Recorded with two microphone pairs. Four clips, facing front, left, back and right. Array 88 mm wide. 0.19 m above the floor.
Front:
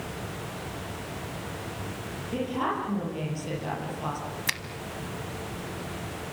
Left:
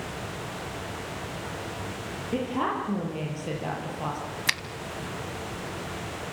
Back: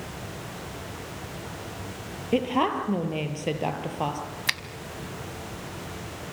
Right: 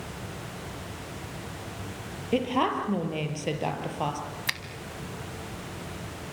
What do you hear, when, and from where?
2.3 s a woman speaking: 145° right, 5.5 m
4.5 s a finger snap: 105° left, 0.8 m